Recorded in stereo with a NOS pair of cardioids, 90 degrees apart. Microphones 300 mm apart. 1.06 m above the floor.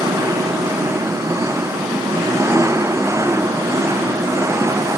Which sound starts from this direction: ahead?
An engine running, at 0.0 s.